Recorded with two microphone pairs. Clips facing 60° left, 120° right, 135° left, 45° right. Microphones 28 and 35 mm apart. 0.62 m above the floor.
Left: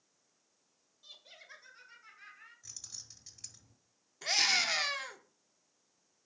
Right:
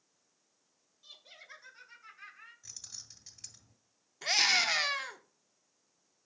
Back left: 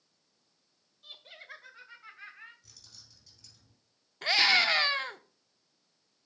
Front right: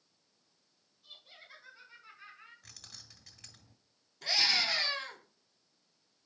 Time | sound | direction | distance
1.0 | laughter | 145° left | 1.3 m
2.6 | keys jangling | 40° right | 1.6 m
4.2 | a scream | 160° left | 1.0 m